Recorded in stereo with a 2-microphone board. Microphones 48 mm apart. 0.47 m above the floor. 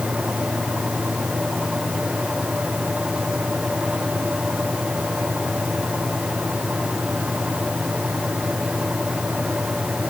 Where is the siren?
I don't hear a siren.